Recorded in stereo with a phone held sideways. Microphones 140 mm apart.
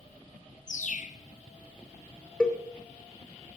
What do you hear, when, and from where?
0.7 s a bird: 60° left (ahead or behind), 0.5 m
2.4 s a cowbell: 5° left (ahead or behind), 0.9 m